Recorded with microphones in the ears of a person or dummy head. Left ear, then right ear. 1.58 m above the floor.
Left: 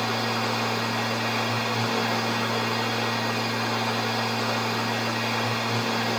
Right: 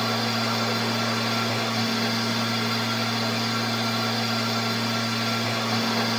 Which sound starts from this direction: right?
A machine running, at 0.0 s.